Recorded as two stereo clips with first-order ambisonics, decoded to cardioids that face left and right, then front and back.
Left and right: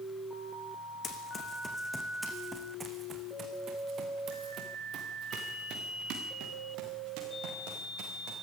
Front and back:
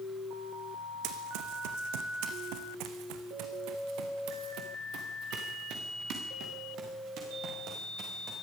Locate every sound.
1.0 s running footsteps: 155° left, 2.5 m; by 8.3 s 125° right, 7.5 m